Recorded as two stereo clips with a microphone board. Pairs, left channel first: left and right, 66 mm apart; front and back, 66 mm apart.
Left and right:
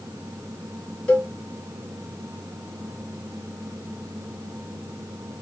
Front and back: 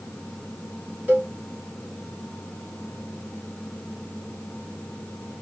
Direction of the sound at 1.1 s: 150° left.